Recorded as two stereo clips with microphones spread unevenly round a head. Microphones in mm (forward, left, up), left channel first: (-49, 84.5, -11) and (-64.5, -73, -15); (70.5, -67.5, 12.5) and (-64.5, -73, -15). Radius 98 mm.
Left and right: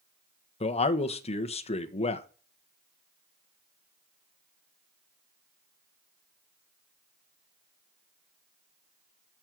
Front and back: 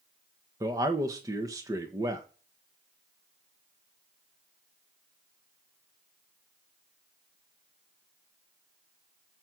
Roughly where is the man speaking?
Behind left.